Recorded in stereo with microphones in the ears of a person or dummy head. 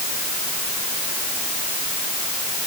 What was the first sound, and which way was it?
Only background noise.